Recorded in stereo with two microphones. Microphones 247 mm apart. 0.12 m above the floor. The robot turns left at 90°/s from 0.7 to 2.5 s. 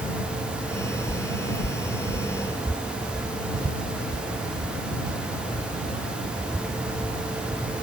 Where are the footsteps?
50° left (ahead or behind); by 7.7 s 15° right (ahead or behind).